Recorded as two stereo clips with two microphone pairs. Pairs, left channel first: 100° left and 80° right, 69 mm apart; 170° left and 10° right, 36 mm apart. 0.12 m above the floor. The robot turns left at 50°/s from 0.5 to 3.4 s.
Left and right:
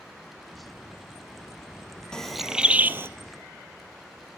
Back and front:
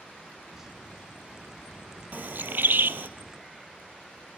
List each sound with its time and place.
2.1 s a bird: 20° left, 0.8 m; by 3.1 s 30° right, 0.8 m